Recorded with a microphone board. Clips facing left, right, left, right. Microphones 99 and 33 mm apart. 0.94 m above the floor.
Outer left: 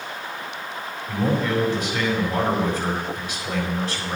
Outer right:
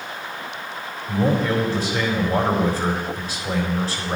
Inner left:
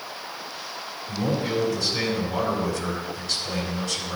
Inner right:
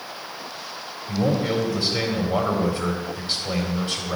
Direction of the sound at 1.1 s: 35° right (ahead or behind).